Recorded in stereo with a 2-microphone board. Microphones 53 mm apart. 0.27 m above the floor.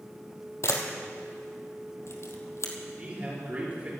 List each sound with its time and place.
0.6 s a camera shutter: 55° left (ahead or behind), 2 m
3.0 s a man speaking: 30° right (ahead or behind), 5.5 m